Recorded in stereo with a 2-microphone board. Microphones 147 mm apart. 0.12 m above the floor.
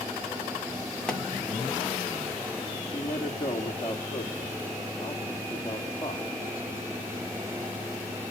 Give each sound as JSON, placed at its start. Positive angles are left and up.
{"t": 1.1, "sound": "a pop", "side_deg": 5, "distance_m": 1.9}
{"t": 2.9, "sound": "a man speaking", "side_deg": 20, "distance_m": 2.5}